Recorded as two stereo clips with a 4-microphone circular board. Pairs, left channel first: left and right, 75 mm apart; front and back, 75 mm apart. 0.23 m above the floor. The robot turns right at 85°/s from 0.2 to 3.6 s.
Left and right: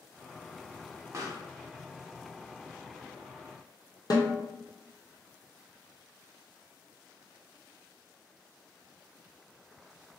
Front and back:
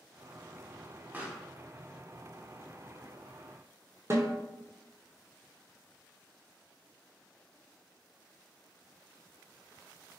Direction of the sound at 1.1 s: 120° right.